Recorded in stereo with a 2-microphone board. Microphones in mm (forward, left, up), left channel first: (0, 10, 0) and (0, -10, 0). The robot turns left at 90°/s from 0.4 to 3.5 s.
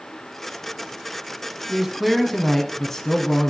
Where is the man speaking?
15° right (ahead or behind), 1.0 m; by 3.5 s 20° left (ahead or behind), 1.0 m.